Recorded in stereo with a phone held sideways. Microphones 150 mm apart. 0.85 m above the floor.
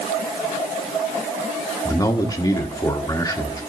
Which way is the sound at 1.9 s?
25° left (ahead or behind).